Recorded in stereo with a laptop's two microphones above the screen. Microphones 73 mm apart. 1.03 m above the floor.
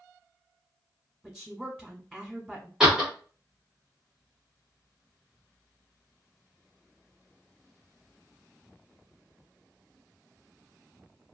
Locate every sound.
1.2 s a woman speaking: 10° right (ahead or behind), 1.0 m
2.8 s a door slam: 10° right (ahead or behind), 1.0 m